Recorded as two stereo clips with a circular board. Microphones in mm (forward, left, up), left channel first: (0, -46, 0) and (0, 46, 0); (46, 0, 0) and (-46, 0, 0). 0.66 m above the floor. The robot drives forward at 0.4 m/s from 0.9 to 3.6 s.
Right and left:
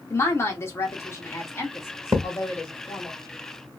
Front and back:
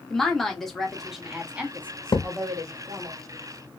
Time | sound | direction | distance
0.1 | a woman speaking | 80° right | 0.9 m
2.1 | a thud | 35° left | 0.9 m